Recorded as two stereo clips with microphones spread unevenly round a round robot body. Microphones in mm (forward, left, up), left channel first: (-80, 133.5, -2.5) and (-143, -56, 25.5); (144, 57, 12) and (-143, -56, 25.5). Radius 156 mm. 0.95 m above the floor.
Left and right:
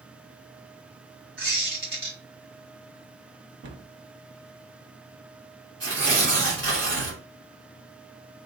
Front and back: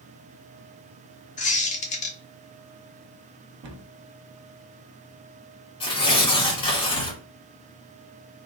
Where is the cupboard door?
120° right, 0.8 m.